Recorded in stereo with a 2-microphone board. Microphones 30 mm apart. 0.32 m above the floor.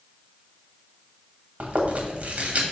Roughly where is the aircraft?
I don't hear an aircraft.